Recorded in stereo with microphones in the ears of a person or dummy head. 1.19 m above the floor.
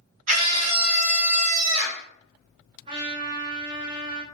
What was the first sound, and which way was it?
A scream, 40° right (ahead or behind).